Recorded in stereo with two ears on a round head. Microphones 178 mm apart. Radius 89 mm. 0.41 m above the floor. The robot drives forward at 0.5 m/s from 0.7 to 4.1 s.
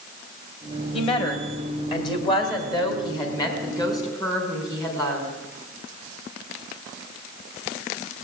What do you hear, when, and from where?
0.9 s a woman speaking: 30° left (ahead or behind), 2 m; by 5.3 s 20° left (ahead or behind), 3.5 m